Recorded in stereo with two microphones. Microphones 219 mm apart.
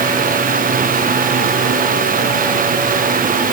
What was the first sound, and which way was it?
Only background noise.